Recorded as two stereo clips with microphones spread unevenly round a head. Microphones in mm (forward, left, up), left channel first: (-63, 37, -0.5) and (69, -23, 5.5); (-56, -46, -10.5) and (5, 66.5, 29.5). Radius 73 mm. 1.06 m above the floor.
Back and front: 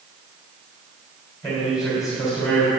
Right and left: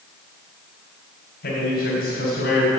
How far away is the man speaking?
About 3 m.